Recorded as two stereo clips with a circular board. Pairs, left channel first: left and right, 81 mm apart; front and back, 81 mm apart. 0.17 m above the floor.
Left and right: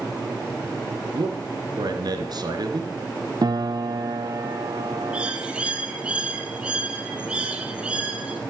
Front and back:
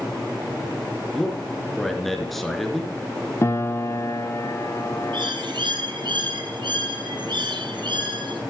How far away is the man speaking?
About 3 m.